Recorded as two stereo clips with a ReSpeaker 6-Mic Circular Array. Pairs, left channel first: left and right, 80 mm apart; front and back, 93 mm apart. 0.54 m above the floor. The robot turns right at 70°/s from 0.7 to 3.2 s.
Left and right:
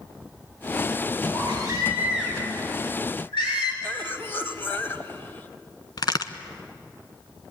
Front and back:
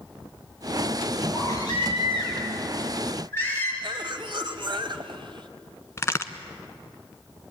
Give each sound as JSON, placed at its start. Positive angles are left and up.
{"t": 1.3, "sound": "a baby crying", "azimuth_deg": -70, "distance_m": 8.0}
{"t": 3.8, "sound": "a cough", "azimuth_deg": 150, "distance_m": 2.5}
{"t": 6.0, "sound": "a crack", "azimuth_deg": 60, "distance_m": 1.2}